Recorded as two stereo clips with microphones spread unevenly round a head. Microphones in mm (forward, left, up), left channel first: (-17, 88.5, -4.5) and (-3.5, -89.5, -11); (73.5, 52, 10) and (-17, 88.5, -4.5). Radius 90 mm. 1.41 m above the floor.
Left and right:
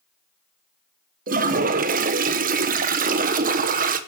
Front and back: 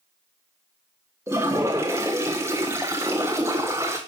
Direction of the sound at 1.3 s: 130° right.